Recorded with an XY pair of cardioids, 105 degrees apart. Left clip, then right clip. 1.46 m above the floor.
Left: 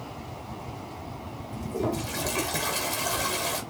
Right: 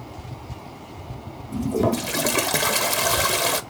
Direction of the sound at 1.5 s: 70° right.